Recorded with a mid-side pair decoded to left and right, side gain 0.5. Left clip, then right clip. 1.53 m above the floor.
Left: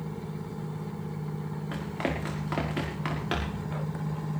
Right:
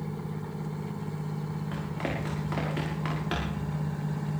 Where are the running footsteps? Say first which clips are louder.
Left 2 dB; 30° left, 6 m; by 3.6 s 15° left, 6.5 m.